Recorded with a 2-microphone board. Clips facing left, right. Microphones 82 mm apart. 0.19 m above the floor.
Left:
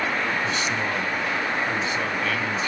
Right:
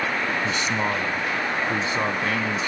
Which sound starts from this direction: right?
A man speaking, at 0.4 s.